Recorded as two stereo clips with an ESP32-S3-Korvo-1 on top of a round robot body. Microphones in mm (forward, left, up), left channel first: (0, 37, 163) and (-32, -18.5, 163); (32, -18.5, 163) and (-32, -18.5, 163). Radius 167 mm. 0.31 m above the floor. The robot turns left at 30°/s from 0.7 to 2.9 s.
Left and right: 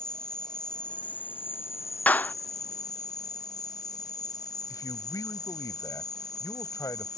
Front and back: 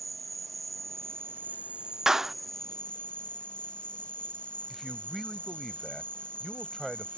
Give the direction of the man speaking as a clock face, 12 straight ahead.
9 o'clock.